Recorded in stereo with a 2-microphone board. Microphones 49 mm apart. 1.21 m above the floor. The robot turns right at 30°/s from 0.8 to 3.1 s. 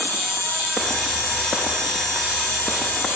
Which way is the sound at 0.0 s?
60° left.